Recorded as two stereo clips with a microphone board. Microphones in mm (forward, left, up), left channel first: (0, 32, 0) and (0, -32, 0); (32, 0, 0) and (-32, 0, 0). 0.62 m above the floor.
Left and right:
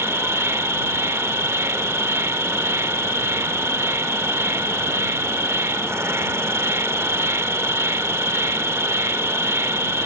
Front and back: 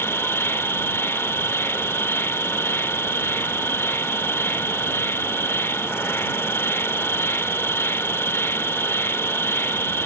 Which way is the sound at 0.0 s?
50° right.